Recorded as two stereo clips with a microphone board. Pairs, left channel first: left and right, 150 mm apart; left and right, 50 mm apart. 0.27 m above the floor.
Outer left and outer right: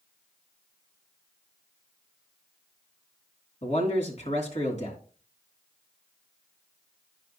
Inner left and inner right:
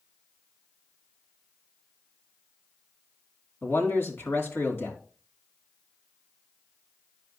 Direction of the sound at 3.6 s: 50° left (ahead or behind).